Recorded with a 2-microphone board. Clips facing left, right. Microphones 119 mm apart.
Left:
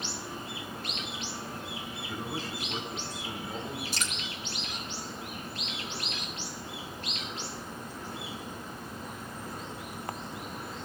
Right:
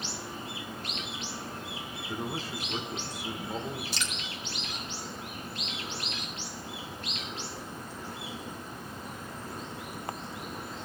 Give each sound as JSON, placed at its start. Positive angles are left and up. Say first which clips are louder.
{"t": 2.0, "sound": "a man speaking", "louder": "right 2 dB", "side_deg": -15, "distance_m": 2.5}
{"t": 3.9, "sound": "dripping", "louder": "even", "side_deg": 45, "distance_m": 1.7}